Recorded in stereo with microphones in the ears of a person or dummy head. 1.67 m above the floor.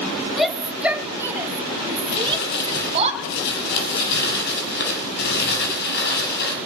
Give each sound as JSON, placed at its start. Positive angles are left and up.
{"t": 0.4, "sound": "a shout", "side_deg": 0, "distance_m": 2.0}
{"t": 2.1, "sound": "crumpling", "side_deg": 60, "distance_m": 7.0}